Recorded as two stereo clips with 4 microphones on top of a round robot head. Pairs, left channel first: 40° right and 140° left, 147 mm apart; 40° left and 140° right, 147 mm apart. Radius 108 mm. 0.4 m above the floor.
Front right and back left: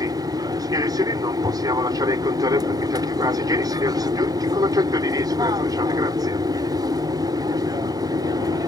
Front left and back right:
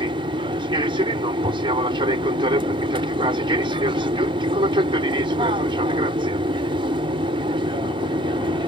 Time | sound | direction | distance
0.0 | an aircraft | 170° right | ?